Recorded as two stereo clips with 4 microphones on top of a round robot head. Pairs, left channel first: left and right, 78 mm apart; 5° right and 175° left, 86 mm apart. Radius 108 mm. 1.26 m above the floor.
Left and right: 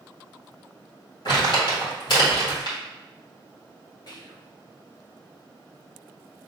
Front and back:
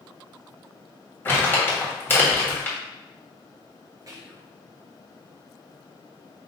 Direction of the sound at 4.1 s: 125° left.